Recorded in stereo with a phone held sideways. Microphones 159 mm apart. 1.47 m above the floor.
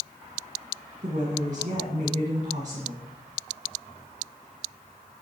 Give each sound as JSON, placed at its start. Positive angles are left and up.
{"t": 1.0, "sound": "a woman speaking", "side_deg": -55, "distance_m": 1.7}